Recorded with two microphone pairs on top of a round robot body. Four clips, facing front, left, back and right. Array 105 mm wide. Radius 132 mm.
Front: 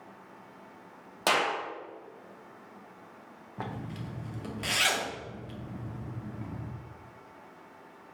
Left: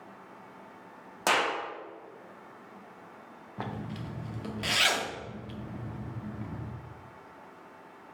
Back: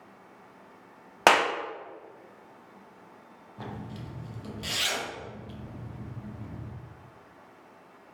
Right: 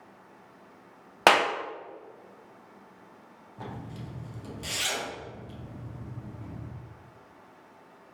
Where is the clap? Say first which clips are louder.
Right 6 dB, back 6 dB; 130° right, 0.8 m.